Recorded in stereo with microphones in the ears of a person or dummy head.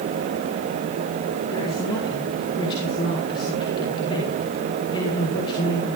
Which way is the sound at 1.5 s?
25° left (ahead or behind).